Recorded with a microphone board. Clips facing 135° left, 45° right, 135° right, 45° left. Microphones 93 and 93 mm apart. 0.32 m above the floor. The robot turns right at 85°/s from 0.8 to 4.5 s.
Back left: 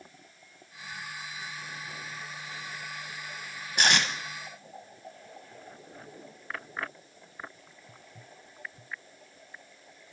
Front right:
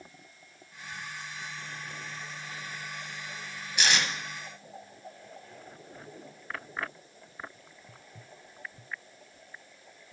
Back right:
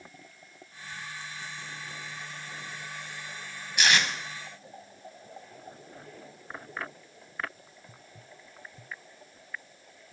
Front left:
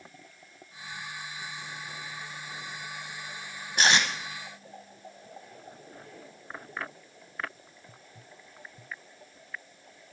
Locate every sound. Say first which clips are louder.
3.8 s tape being pulled: back left 2 dB, front left 1 dB; 90° left, 0.7 m; by 4.1 s 120° left, 0.7 m